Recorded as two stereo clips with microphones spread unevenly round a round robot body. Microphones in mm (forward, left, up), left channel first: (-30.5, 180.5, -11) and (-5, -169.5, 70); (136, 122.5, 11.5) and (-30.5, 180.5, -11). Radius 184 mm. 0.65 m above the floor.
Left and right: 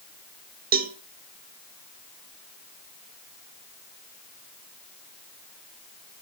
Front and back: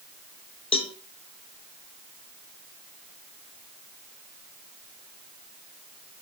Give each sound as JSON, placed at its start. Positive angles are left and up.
{"t": 0.7, "sound": "a cowbell", "azimuth_deg": -25, "distance_m": 0.9}